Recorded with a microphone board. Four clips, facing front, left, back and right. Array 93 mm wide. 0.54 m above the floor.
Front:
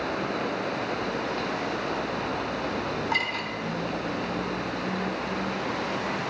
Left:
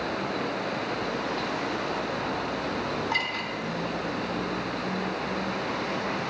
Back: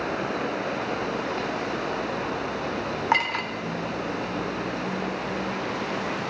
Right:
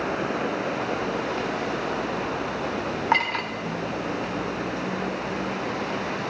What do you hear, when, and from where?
3.1 s a clink: 140° right, 1.2 m